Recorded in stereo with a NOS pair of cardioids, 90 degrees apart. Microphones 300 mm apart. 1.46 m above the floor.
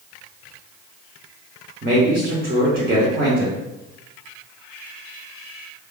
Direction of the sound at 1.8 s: 30° right.